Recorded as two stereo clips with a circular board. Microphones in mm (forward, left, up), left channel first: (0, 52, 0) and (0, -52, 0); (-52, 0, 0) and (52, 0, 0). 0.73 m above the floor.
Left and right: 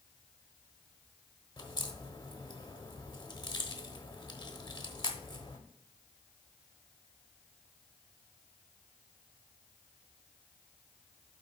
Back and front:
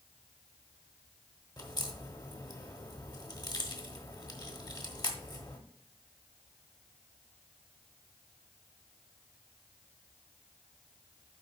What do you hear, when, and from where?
1.6 s a crack: 135° left, 1.0 m